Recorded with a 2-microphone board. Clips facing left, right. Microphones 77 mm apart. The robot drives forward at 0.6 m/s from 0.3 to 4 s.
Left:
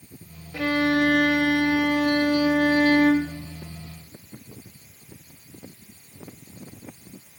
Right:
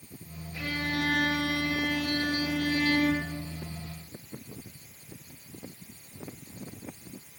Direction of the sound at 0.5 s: 80° left.